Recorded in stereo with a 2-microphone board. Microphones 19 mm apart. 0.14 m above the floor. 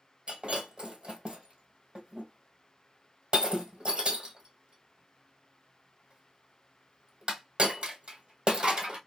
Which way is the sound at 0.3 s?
55° right (ahead or behind).